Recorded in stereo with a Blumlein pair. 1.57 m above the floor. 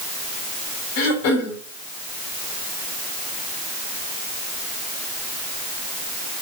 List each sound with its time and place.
1.0 s throat clearing: 50° left, 4 m